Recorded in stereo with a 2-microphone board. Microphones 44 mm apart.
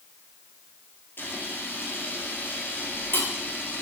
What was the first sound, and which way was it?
A camera shutter, 55° left (ahead or behind).